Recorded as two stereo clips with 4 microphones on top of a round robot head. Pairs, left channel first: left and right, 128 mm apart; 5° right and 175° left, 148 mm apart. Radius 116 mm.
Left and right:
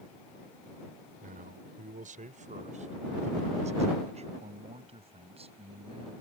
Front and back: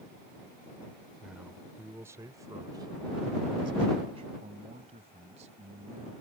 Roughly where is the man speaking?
Right.